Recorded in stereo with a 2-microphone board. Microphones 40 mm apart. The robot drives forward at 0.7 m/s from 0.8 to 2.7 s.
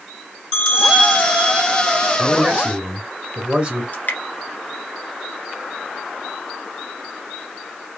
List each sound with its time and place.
0.5 s a bell: 20° left (ahead or behind), 3 m; by 2.2 s 25° left (ahead or behind), 2 m
2.2 s a man speaking: 20° right (ahead or behind), 2 m
3.9 s dripping: 40° left (ahead or behind), 1.7 m